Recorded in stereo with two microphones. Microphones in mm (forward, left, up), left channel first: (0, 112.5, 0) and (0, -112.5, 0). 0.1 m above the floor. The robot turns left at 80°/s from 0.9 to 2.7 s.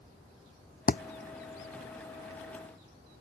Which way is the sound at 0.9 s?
40° left (ahead or behind).